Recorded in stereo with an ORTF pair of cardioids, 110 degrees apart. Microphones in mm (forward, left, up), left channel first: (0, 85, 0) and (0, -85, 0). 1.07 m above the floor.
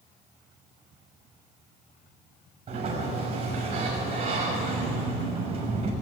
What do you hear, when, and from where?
2.7 s a sliding door: 35° right, 5.5 m